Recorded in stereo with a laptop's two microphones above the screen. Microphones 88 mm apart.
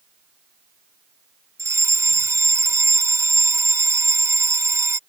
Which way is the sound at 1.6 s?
35° right (ahead or behind).